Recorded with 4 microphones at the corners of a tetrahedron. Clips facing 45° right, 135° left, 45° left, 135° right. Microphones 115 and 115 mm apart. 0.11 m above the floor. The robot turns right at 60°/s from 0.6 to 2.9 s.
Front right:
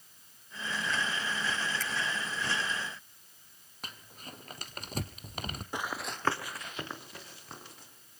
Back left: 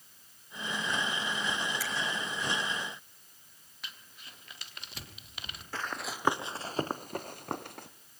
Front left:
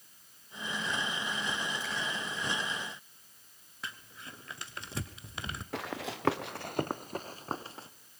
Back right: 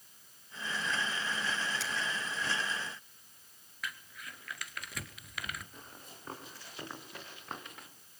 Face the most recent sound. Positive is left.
turn(degrees=105)